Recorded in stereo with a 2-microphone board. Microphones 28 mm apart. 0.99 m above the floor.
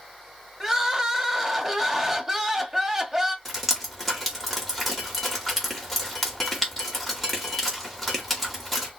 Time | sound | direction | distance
0.6 | crying | 20° right (ahead or behind) | 0.9 m
3.5 | dripping | 5° left (ahead or behind) | 2 m